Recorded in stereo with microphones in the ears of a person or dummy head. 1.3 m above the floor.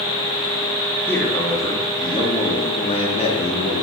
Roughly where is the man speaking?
Centre.